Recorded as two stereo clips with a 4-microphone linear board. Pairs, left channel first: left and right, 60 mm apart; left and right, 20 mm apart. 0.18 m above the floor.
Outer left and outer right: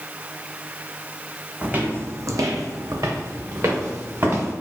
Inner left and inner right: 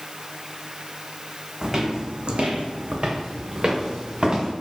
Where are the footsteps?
20° right (ahead or behind), 0.6 m; by 4.5 s 45° right (ahead or behind), 1.5 m.